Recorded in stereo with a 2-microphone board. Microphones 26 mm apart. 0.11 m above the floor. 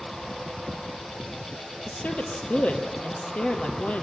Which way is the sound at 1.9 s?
55° left (ahead or behind).